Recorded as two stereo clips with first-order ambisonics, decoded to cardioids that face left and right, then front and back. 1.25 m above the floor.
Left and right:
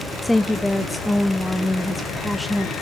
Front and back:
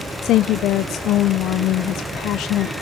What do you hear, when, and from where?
0.2 s a woman speaking: 5° left, 0.5 m